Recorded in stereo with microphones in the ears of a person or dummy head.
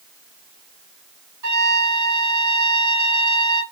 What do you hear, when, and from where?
1.4 s a trumpet: 65° right (ahead or behind), 1.5 m